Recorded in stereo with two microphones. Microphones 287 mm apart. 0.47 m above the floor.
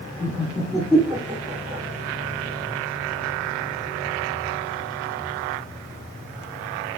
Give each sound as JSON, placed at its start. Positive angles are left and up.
{"t": 0.2, "sound": "laughter", "side_deg": 30, "distance_m": 1.1}